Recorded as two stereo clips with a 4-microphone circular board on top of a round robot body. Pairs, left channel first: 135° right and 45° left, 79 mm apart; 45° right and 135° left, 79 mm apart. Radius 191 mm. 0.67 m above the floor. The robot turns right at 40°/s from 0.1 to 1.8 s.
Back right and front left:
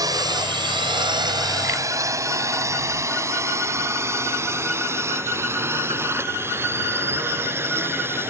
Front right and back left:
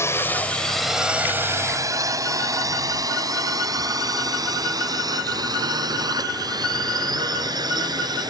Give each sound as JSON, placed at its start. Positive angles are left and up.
{"t": 0.0, "sound": "a drone", "azimuth_deg": 10}